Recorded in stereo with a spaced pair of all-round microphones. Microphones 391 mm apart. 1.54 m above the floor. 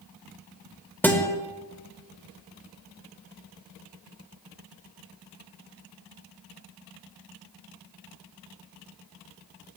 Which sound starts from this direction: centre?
A guitar, at 1.0 s.